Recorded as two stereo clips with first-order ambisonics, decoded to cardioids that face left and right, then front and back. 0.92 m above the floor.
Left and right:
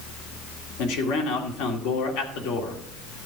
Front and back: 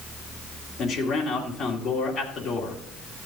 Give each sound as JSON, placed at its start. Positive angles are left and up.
{"t": 0.8, "sound": "a man speaking", "azimuth_deg": 75, "distance_m": 2.5}